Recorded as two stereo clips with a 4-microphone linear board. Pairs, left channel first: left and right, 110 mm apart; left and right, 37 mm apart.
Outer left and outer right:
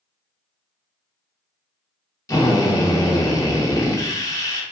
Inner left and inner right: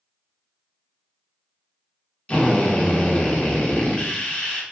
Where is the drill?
30° left (ahead or behind), 0.6 m.